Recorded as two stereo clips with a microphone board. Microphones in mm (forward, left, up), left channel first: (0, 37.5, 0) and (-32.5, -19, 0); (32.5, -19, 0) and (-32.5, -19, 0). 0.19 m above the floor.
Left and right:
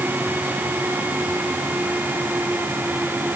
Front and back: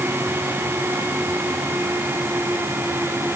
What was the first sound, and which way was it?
Only background noise.